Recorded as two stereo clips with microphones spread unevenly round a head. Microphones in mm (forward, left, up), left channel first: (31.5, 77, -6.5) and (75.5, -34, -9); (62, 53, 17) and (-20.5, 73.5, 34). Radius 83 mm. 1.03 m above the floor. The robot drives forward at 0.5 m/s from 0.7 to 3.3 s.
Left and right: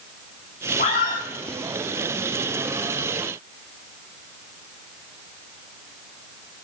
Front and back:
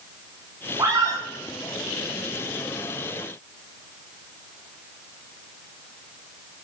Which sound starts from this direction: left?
A scream, at 0.8 s.